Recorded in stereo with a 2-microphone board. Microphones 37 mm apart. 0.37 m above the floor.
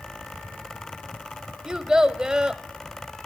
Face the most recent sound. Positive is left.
turn(degrees=-20)  # may be behind; listen again after turning